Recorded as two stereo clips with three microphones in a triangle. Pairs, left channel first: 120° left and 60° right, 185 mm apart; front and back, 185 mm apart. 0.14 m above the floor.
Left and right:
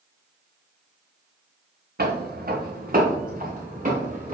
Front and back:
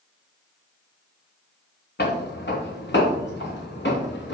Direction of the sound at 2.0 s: 25° right.